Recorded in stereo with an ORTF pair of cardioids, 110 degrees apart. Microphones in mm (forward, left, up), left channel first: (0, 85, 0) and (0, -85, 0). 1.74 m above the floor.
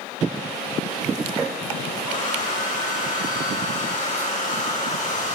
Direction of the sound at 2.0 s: 50° left.